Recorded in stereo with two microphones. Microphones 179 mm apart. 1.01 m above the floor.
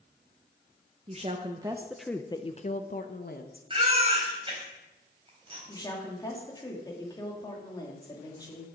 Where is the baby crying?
30° right (ahead or behind), 4 m.